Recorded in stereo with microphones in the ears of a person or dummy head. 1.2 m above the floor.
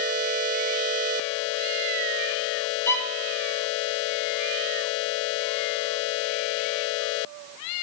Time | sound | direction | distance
2.9 | a violin | 15° left (ahead or behind) | 0.5 m